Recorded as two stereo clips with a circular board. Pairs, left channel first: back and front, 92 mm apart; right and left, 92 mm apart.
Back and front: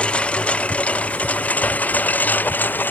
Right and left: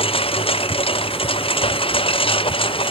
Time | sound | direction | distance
0.0 | a lawn mower | 100° right | ?